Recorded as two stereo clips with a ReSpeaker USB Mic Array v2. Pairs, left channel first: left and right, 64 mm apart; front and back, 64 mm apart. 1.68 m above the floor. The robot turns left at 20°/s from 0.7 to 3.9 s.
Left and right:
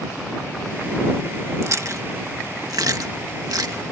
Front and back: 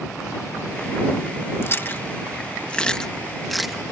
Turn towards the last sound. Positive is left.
turn(degrees=-95)